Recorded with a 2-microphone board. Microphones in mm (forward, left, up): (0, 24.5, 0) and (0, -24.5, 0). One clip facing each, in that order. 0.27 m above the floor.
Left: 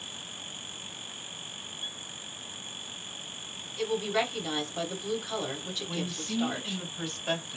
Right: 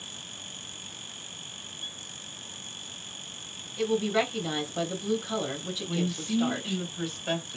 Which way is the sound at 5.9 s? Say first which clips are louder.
Right 6 dB; 5° right (ahead or behind).